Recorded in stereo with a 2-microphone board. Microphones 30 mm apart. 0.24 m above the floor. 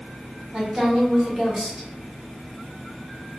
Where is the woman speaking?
20° right (ahead or behind), 1.7 m.